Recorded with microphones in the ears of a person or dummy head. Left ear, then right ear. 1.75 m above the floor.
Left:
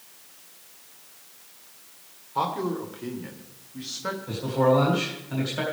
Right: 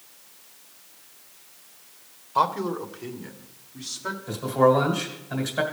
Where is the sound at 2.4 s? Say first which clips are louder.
Right 4 dB; 45° right (ahead or behind), 1.1 m; by 4.2 s centre (ahead or behind), 2.0 m.